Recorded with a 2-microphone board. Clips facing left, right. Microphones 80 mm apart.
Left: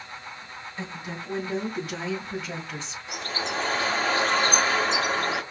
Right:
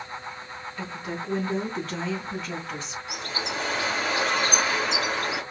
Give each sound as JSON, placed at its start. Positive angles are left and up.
{"t": 0.8, "sound": "a woman speaking", "side_deg": 25, "distance_m": 2.0}
{"t": 3.1, "sound": "a bird", "side_deg": 40, "distance_m": 1.5}